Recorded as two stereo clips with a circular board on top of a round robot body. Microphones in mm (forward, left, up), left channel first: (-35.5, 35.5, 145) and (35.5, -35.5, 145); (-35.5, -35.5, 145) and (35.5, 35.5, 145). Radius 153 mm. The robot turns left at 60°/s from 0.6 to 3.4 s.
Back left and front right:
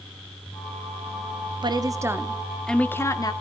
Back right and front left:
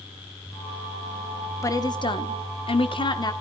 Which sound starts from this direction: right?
A woman speaking, at 1.6 s.